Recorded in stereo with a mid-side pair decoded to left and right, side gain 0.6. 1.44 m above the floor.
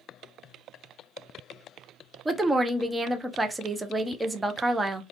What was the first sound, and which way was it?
A woman speaking, 10° right.